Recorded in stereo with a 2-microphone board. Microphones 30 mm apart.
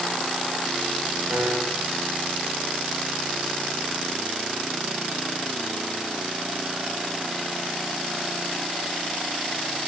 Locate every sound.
1.3 s a piano: 80° right, 7.5 m